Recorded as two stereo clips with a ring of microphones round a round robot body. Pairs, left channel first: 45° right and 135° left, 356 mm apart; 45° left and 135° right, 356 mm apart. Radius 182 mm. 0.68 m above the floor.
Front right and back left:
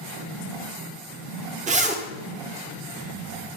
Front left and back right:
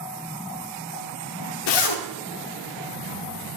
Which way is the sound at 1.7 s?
65° left.